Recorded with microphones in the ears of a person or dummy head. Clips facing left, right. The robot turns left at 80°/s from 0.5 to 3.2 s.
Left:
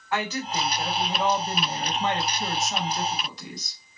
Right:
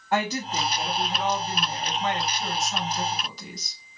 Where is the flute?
I don't hear a flute.